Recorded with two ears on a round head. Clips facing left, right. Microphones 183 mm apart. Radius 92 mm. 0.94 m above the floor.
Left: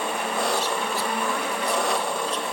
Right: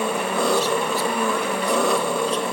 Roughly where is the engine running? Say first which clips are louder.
Right 5 dB; right.